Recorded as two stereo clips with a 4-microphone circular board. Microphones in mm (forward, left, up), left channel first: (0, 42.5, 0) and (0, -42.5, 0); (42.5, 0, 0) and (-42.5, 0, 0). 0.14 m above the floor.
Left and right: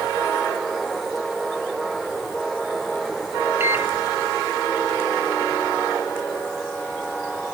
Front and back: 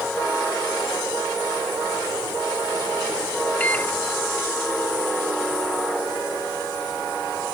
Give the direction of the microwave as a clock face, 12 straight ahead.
2 o'clock.